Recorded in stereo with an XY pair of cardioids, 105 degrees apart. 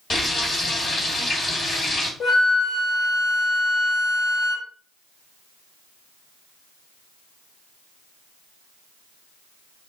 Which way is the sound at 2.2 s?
55° left.